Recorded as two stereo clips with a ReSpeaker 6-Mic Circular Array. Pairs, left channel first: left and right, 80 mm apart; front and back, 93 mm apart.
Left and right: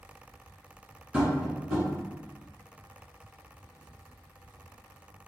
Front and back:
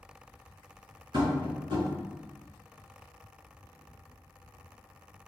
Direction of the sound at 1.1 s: 165° right.